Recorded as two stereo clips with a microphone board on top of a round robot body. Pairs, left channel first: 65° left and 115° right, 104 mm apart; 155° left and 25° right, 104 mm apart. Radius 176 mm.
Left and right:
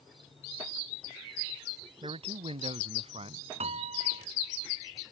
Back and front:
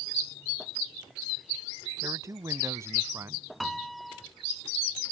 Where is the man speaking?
85° right.